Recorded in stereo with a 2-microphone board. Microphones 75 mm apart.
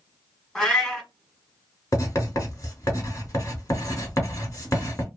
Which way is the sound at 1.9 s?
45° left (ahead or behind).